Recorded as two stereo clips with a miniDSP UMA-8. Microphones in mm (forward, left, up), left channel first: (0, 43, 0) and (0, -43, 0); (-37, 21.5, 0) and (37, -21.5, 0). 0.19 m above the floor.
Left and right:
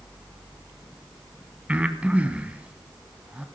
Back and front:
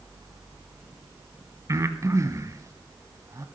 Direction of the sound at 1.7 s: 25° right.